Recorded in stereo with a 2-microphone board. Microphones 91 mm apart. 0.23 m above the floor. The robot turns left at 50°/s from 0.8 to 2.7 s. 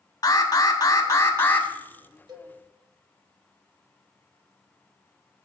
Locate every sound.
0.2 s an alarm: 65° left, 0.8 m; by 1.7 s 25° left, 0.8 m
2.3 s a cowbell: 50° right (ahead or behind), 0.7 m; by 2.5 s 55° right (ahead or behind), 0.7 m